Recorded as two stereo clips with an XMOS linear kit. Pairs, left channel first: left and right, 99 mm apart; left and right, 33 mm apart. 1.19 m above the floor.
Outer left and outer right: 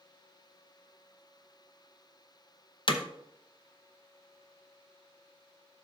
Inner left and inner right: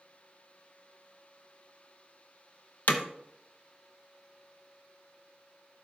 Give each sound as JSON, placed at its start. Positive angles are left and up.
{"t": 2.9, "sound": "hammering", "side_deg": 60, "distance_m": 0.8}